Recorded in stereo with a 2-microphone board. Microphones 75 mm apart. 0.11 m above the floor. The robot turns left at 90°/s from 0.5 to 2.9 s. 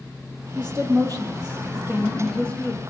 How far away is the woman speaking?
About 4 m.